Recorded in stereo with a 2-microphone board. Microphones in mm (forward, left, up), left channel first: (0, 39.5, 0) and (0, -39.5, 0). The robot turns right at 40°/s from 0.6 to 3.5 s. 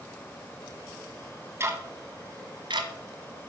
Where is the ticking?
30° right (ahead or behind), 1.5 m; by 3.5 s 70° right (ahead or behind), 1.5 m.